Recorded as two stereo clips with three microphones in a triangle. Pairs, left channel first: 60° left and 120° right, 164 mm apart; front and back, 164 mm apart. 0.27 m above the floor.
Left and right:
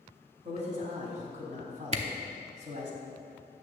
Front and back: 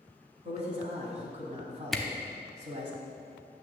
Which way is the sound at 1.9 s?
90° right.